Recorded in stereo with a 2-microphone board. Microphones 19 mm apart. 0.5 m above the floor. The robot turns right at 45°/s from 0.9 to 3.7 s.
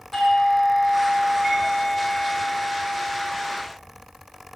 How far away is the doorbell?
About 6.5 m.